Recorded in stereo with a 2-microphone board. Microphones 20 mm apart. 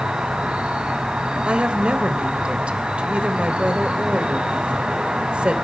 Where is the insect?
55° right (ahead or behind), 6.5 m.